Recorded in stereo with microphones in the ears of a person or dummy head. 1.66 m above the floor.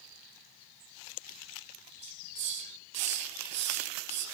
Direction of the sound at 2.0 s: 35° right (ahead or behind).